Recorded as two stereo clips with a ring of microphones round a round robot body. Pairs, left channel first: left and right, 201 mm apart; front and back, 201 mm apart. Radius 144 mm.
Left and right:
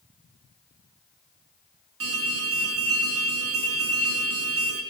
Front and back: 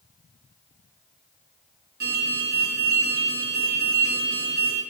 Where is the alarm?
125° right, 5.5 m.